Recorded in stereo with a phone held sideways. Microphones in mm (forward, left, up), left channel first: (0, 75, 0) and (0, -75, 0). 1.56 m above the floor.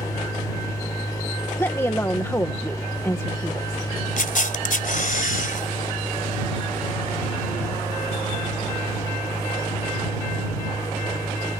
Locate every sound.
0.0 s a machine running: 25° left (ahead or behind)
1.6 s a woman speaking: 20° left (ahead or behind)
4.2 s a camera shutter: 65° left (ahead or behind)